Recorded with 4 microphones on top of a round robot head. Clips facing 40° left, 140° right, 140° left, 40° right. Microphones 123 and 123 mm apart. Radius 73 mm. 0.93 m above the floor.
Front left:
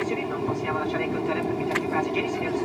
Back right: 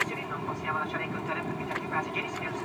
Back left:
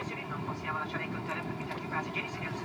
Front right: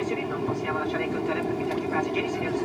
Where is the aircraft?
10° right.